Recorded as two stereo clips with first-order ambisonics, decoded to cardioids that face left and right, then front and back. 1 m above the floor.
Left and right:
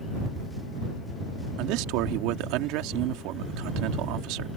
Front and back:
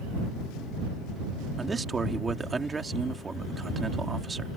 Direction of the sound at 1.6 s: 105° right.